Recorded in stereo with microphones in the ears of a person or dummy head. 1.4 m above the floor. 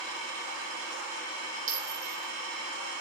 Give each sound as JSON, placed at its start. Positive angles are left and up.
{"t": 1.7, "sound": "a clink", "side_deg": -50, "distance_m": 3.5}